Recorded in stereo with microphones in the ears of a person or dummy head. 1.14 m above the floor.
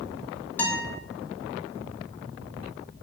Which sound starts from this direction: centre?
A guitar, at 0.6 s.